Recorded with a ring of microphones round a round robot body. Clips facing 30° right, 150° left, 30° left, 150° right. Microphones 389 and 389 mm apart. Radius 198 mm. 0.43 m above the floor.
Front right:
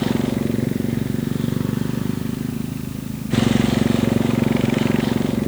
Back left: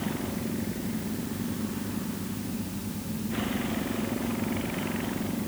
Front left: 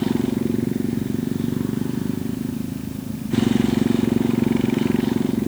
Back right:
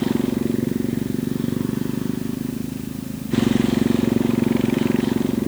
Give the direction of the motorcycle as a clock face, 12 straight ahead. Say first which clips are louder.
Front right 12 dB, even; 2 o'clock.